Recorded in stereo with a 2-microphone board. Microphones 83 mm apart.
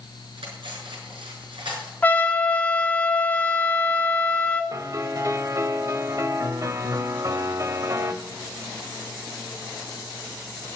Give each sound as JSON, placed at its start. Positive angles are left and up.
{"t": 0.4, "sound": "cutlery clinking", "side_deg": -90, "distance_m": 6.0}
{"t": 2.0, "sound": "a trumpet", "side_deg": 20, "distance_m": 1.8}
{"t": 4.7, "sound": "a piano", "side_deg": -40, "distance_m": 1.2}